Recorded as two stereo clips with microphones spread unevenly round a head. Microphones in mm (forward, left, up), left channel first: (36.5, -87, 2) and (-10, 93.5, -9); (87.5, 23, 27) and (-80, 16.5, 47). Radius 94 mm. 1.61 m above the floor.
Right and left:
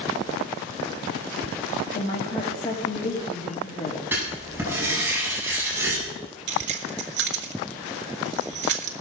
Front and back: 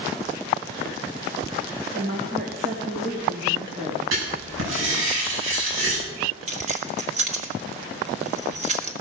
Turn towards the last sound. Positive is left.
turn(degrees=135)